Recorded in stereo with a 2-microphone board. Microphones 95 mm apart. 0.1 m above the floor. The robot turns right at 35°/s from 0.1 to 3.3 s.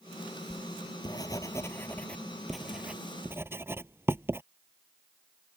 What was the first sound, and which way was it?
Writing, 55° left (ahead or behind).